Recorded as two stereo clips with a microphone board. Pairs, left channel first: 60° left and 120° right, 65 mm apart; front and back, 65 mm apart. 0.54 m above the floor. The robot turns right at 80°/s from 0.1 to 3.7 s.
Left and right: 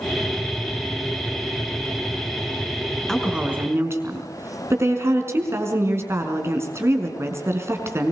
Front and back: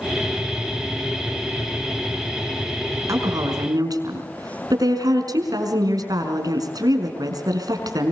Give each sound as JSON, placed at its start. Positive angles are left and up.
{"t": 3.1, "sound": "a woman speaking", "azimuth_deg": 145, "distance_m": 5.0}